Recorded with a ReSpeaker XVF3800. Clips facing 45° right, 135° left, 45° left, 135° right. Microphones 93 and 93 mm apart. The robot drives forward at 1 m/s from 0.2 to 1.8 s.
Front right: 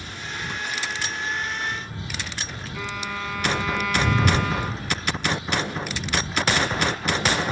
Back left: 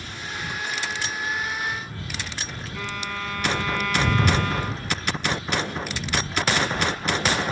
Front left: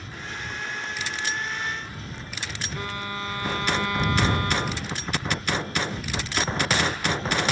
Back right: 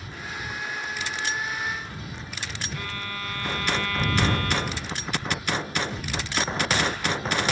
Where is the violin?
35° left.